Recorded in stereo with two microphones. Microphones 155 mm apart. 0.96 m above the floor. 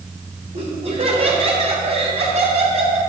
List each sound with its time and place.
0.5 s laughter: 50° right (ahead or behind), 2.5 m